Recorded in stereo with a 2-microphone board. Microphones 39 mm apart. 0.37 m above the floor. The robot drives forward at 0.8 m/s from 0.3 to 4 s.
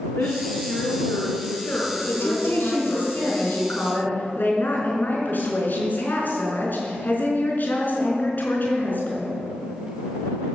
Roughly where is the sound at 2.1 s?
Left.